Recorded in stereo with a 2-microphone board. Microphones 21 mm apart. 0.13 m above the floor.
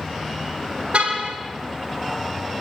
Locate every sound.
0.9 s a car horn: 65° right (ahead or behind), 4 m